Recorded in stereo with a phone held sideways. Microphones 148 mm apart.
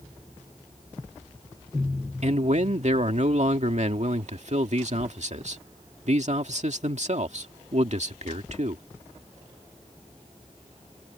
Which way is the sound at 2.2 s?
55° right (ahead or behind).